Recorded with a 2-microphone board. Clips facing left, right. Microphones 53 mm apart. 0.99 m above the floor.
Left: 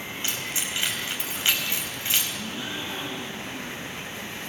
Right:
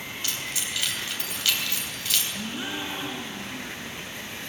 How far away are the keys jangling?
About 4 m.